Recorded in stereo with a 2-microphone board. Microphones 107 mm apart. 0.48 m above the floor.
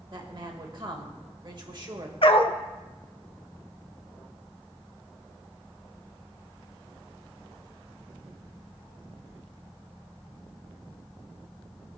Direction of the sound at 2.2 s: 60° left (ahead or behind).